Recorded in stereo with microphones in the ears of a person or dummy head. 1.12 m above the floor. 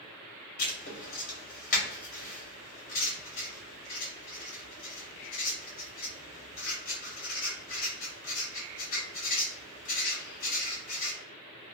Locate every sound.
0.6 s writing: 40° left (ahead or behind), 0.9 m